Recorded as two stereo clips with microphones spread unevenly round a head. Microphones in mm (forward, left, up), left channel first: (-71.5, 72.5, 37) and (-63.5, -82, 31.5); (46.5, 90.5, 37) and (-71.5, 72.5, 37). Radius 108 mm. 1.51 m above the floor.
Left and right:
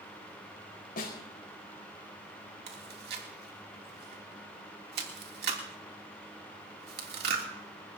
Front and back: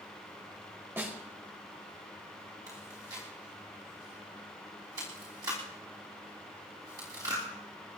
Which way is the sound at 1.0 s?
115° left.